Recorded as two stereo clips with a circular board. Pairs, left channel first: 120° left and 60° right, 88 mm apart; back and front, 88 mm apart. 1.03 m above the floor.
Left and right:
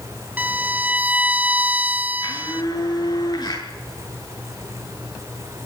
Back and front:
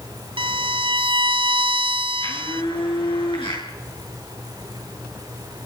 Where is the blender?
160° left, 9.5 m.